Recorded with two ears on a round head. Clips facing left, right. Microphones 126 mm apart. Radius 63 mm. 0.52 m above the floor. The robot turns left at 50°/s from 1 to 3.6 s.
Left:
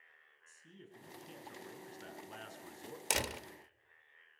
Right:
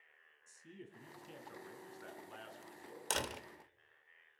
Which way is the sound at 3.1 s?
15° left (ahead or behind).